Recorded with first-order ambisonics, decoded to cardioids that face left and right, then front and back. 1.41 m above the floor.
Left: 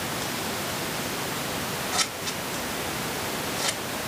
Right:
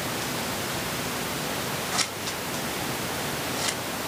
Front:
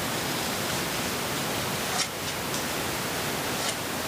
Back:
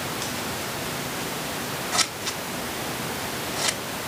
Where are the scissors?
170° right, 1.3 m.